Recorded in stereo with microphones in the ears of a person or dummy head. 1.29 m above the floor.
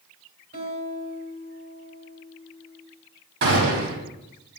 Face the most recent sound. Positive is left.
turn(degrees=-65)  # may be behind; listen again after turning